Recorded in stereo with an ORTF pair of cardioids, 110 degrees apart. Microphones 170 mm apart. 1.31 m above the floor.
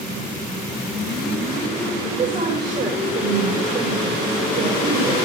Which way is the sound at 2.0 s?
50° right.